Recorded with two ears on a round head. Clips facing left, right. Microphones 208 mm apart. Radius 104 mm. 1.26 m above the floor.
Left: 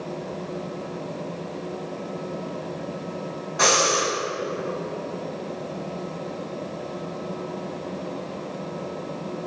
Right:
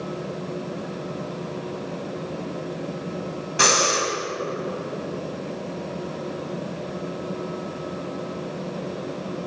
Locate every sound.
3.6 s breathing: 45° right (ahead or behind), 4 m